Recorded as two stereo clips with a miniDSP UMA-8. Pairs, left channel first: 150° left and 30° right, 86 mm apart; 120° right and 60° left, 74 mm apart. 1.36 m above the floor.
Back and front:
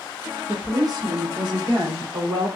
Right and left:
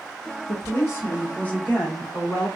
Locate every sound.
0.5 s a woman speaking: 90° right, 0.7 m; by 2.5 s 40° right, 1.6 m